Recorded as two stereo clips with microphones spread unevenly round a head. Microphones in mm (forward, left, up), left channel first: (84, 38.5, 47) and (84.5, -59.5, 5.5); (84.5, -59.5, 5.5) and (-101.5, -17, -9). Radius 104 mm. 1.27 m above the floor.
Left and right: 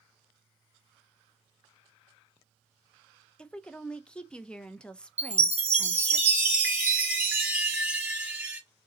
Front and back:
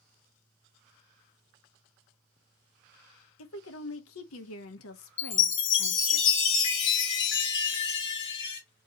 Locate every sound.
3.4 s a woman speaking: 15° left, 0.8 m
5.2 s a chime: 5° right, 1.7 m